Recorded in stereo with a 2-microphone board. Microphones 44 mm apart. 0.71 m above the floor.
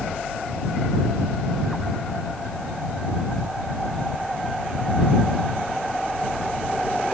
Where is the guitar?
No guitar in this recording.